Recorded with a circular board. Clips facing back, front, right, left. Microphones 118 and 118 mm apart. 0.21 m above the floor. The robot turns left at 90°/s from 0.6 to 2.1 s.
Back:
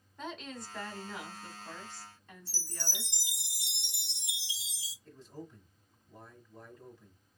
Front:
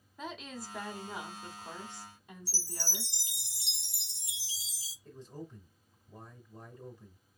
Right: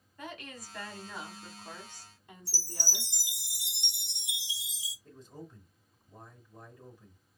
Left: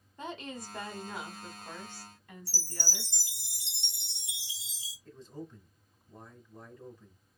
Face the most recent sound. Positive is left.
turn(degrees=-30)